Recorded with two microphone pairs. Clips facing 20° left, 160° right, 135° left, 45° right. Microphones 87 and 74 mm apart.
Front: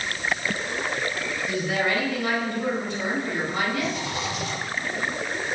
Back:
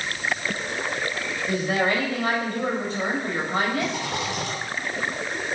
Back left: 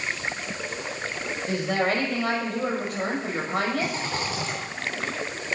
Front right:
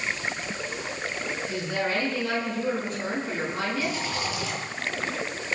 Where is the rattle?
175° right, 9 m.